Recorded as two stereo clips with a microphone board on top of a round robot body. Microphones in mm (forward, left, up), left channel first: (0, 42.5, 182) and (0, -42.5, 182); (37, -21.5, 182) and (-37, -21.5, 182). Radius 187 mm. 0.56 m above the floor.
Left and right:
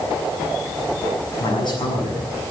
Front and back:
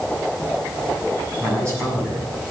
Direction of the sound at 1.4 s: 125° left.